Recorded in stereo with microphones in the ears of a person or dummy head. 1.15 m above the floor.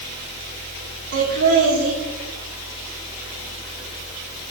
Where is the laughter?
80° right, 3.5 m.